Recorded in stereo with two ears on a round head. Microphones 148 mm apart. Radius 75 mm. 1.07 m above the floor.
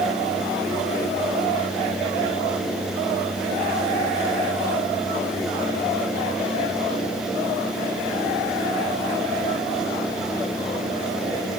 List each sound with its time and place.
Only background noise.